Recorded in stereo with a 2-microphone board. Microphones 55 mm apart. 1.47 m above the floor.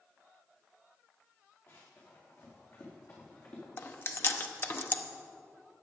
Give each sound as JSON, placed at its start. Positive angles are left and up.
{"t": 1.7, "sound": "running footsteps", "side_deg": 55, "distance_m": 5.5}
{"t": 3.8, "sound": "chewing", "side_deg": 45, "distance_m": 0.8}